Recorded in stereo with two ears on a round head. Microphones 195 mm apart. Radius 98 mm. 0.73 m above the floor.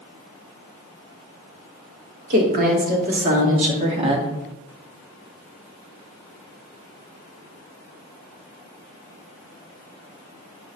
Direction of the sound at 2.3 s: 45° right (ahead or behind).